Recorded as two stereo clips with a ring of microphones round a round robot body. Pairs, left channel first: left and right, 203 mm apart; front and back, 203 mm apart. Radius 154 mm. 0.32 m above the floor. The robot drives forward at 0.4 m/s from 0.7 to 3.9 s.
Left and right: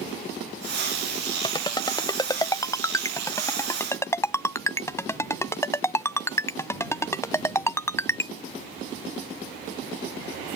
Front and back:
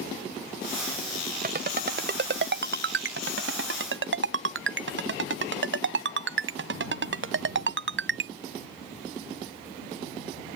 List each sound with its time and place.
1.4 s a ringtone: 150° left; by 8.3 s 165° left